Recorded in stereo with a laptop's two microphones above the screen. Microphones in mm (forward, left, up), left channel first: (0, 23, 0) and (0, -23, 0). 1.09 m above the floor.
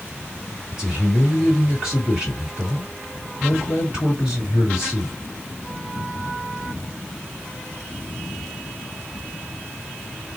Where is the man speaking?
20° right (ahead or behind), 1.8 m.